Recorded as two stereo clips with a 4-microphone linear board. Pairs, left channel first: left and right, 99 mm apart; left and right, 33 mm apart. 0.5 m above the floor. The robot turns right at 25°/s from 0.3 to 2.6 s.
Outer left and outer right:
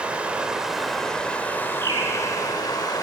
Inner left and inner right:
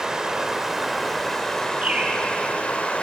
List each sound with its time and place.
0.0 s running water: 15° right, 1.1 m; by 3.0 s 45° left, 1.1 m
1.8 s a bird: 50° right (ahead or behind), 2.0 m; by 2.2 s 40° right (ahead or behind), 2.0 m